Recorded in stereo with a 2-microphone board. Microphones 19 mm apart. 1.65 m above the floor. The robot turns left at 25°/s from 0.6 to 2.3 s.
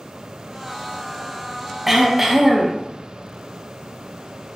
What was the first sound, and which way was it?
Throat clearing, 10° right (ahead or behind).